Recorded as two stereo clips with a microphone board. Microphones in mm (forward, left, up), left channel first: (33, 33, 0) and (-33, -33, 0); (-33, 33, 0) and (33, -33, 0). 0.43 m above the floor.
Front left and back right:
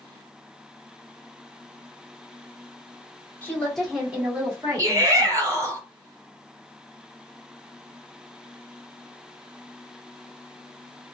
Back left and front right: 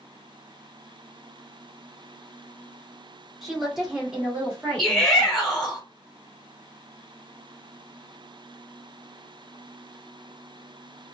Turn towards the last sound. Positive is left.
turn(degrees=-140)